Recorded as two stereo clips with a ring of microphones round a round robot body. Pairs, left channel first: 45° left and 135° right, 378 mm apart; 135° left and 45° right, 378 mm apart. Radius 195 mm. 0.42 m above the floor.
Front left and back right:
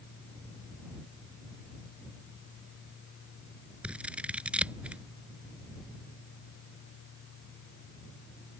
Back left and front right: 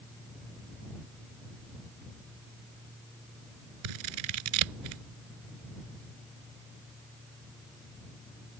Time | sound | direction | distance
3.8 | scissors | 50° right | ?